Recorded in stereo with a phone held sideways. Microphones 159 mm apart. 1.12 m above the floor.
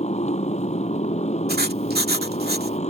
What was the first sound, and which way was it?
A motorcycle, 45° left (ahead or behind).